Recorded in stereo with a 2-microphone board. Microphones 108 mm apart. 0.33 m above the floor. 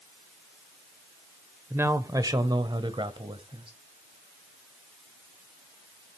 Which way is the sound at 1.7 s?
20° right (ahead or behind).